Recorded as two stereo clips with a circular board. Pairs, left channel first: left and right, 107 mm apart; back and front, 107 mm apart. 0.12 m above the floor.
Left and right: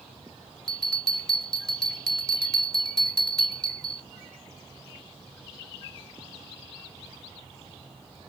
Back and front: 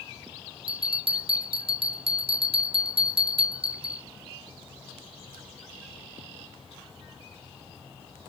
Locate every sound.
0.7 s a bell: 10° left, 0.6 m